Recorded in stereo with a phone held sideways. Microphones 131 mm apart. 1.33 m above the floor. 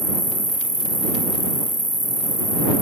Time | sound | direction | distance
0.0 | an insect | 25° right (ahead or behind) | ?